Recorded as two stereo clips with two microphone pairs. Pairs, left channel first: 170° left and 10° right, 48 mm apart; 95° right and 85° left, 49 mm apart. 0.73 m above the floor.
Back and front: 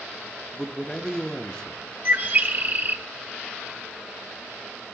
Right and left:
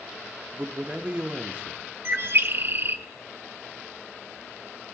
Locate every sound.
0.5 s a man speaking: 110° left, 0.6 m
2.0 s a bird: 40° left, 0.7 m